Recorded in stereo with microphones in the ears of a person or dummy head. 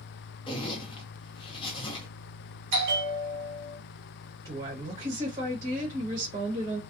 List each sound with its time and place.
0.5 s a zipper: 30° left (ahead or behind), 0.6 m
2.7 s a bell: 65° right (ahead or behind), 0.9 m
4.5 s a woman speaking: 25° right (ahead or behind), 1.1 m